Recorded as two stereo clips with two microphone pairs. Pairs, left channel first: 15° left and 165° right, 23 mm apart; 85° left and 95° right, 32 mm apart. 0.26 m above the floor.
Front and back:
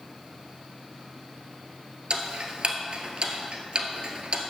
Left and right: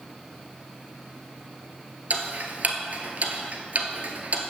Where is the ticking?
130° right, 1.3 m.